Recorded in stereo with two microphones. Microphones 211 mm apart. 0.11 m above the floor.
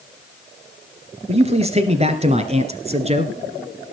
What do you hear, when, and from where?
1.3 s a man speaking: 30° right (ahead or behind), 2 m